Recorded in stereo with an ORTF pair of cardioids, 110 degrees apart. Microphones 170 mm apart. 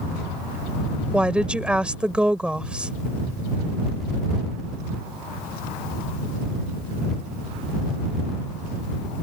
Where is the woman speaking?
5° right.